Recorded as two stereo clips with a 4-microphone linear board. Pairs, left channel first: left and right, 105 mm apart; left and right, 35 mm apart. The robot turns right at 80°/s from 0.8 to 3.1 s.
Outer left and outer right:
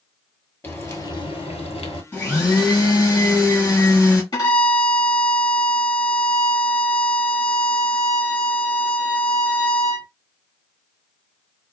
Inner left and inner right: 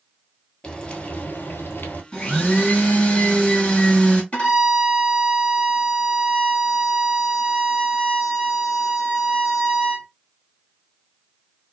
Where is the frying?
25° left, 1.1 m; by 2.0 s 120° left, 1.1 m.